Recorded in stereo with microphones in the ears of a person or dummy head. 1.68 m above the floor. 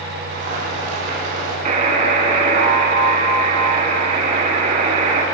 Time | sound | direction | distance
0.3 | boiling | 55° right (ahead or behind) | 5 m
1.6 | a buzzer | 45° right (ahead or behind) | 1.5 m